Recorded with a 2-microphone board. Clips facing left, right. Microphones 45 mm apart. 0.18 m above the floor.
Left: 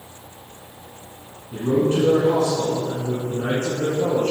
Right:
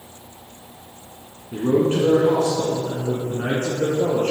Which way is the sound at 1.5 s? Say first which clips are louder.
Right 1 dB; 30° right (ahead or behind).